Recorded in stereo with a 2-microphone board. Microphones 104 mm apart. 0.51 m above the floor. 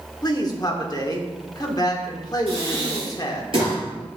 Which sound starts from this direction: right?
Breathing, at 2.5 s.